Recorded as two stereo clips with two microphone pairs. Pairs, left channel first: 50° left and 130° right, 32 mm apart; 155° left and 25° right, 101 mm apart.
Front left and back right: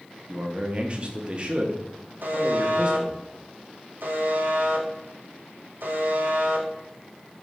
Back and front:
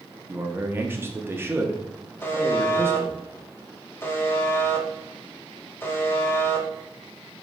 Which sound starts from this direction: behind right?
A buzzer, at 2.2 s.